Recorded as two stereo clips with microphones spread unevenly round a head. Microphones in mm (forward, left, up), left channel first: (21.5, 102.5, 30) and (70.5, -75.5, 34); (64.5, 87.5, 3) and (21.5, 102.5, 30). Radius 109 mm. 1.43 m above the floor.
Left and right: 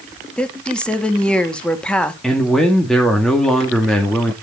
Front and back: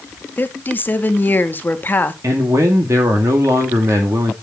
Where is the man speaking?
165° right, 2 m.